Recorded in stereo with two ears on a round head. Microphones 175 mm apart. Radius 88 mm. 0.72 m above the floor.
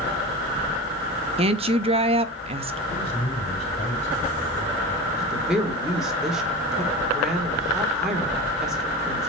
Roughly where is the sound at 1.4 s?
Right.